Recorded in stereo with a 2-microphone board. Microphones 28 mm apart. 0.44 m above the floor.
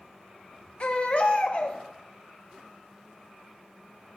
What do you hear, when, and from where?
0.8 s a baby crying: 50° left (ahead or behind), 1.0 m